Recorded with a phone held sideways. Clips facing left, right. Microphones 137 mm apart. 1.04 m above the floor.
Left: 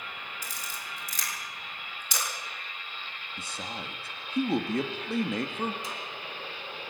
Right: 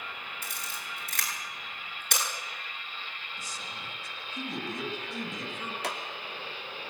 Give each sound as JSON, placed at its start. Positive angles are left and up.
{"t": 0.4, "sound": "a camera shutter", "side_deg": -60, "distance_m": 8.0}
{"t": 3.4, "sound": "a man speaking", "side_deg": 65, "distance_m": 2.0}
{"t": 5.8, "sound": "a clap", "side_deg": -75, "distance_m": 2.5}